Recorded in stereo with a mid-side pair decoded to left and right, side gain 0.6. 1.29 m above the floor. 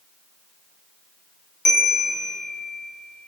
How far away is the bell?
About 1.8 m.